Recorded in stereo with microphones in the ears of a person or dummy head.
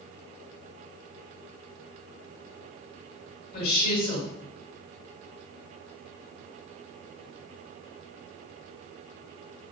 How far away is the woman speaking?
About 2.0 m.